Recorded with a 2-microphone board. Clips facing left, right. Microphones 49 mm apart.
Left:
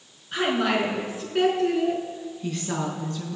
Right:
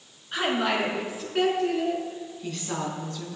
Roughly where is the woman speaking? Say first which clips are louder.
Left 2 dB; centre.